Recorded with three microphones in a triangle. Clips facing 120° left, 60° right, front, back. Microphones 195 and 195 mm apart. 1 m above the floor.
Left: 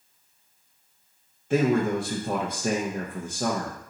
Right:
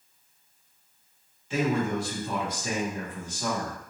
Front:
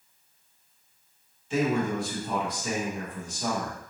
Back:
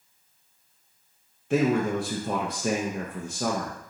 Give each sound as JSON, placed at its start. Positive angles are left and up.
{"t": 1.5, "sound": "a man speaking", "azimuth_deg": 155, "distance_m": 0.6}